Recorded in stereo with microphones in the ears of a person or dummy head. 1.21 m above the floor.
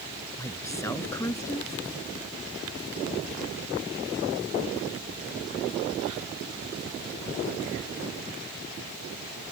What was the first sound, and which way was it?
A woman speaking, 10° left (ahead or behind).